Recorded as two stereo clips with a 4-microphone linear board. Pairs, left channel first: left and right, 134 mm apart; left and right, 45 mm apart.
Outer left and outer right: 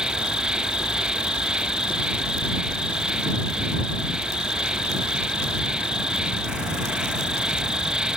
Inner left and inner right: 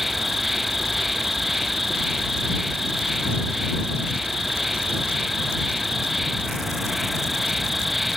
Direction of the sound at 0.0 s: 5° right (ahead or behind).